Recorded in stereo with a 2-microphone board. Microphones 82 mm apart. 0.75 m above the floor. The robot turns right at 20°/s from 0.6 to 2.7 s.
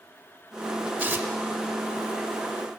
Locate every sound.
1.0 s tearing paper: 25° right (ahead or behind), 0.8 m; by 1.3 s 30° right (ahead or behind), 0.8 m